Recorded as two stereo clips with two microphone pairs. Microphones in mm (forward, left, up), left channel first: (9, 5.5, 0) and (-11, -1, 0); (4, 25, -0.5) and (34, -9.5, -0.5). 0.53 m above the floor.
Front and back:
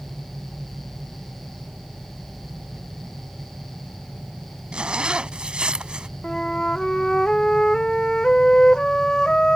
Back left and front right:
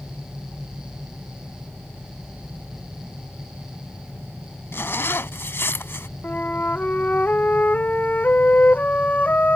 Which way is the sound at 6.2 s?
75° left.